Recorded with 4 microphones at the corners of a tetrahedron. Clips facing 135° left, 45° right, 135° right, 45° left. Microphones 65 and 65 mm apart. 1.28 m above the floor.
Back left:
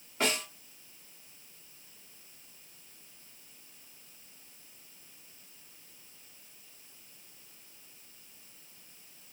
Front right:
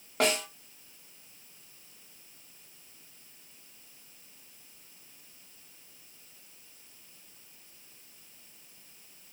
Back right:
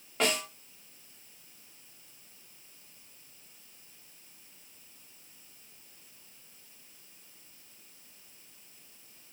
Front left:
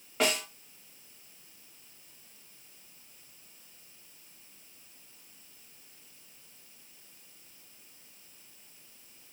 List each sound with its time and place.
0.2 s a snare drum: 40° right, 1.5 m